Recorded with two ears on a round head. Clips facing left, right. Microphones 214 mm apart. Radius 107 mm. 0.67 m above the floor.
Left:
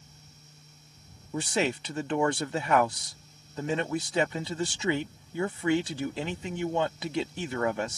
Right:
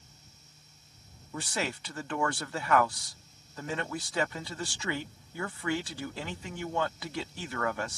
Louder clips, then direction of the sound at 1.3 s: Left 6 dB; 20° left (ahead or behind).